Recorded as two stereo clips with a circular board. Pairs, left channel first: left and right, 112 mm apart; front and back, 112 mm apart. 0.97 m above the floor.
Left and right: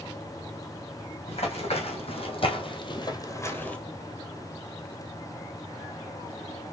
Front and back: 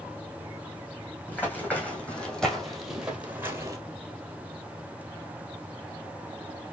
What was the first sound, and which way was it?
Running footsteps, 75° left.